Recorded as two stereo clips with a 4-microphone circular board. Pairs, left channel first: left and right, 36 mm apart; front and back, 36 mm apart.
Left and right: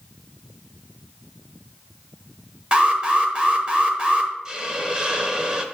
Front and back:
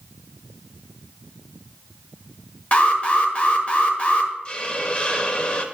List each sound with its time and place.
2.7 s an alarm: 40° right, 0.9 m
4.5 s a hiss: 40° right, 0.7 m